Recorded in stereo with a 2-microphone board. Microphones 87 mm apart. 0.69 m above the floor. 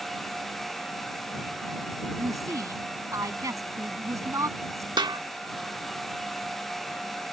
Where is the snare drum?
55° right (ahead or behind).